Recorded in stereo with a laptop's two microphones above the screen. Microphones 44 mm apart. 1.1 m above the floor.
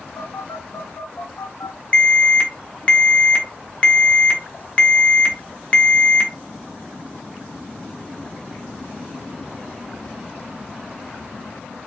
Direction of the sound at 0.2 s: 65° left (ahead or behind).